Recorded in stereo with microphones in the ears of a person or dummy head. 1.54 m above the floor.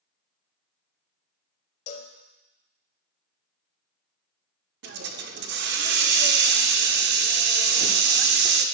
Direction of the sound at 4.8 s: 65° right (ahead or behind).